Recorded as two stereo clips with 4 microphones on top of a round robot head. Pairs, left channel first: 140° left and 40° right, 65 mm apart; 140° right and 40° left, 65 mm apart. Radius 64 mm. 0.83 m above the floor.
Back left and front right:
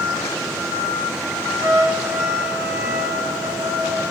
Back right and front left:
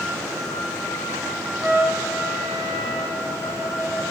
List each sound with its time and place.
1.6 s a trumpet: 5° right, 1.6 m